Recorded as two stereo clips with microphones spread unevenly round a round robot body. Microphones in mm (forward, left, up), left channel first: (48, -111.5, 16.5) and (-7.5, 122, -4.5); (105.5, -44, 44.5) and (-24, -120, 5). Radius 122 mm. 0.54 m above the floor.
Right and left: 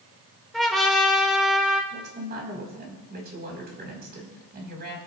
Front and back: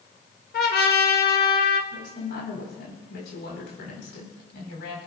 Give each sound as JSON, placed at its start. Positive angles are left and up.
{"t": 0.5, "sound": "a trumpet", "azimuth_deg": 15, "distance_m": 1.5}
{"t": 1.9, "sound": "a woman speaking", "azimuth_deg": 55, "distance_m": 4.5}